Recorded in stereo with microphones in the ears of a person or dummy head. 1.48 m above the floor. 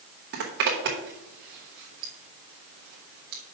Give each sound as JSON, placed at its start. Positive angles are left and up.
{"t": 0.3, "sound": "a zipper", "side_deg": -50, "distance_m": 1.2}